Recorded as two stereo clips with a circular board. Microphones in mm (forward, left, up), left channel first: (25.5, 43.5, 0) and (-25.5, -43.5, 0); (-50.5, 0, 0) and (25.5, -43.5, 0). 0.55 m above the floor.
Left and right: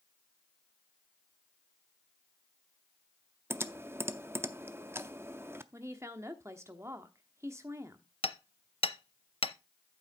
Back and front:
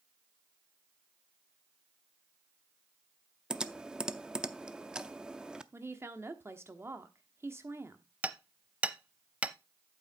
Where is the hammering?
45° left, 0.6 m.